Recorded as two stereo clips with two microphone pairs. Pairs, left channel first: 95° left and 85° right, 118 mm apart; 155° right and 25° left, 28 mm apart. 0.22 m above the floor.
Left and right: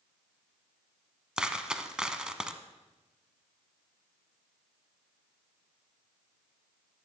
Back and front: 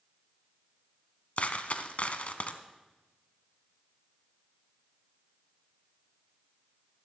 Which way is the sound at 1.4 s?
165° right.